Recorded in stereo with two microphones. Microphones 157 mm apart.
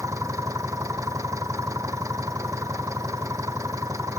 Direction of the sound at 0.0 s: 20° right (ahead or behind).